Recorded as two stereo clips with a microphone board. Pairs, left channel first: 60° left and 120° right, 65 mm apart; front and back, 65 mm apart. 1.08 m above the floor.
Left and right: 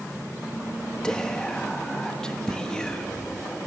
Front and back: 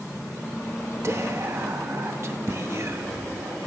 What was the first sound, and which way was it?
Whispering, 140° left.